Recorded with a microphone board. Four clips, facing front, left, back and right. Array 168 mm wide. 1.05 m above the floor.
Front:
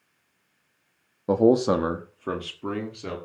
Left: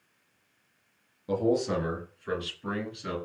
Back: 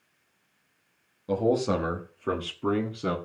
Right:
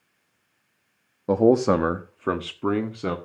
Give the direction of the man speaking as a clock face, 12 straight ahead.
2 o'clock.